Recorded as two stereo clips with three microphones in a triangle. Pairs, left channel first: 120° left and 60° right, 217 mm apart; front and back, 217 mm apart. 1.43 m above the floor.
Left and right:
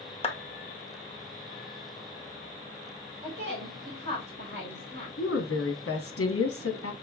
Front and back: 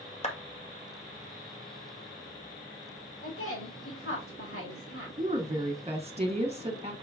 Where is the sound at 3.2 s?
20° right, 2.5 m.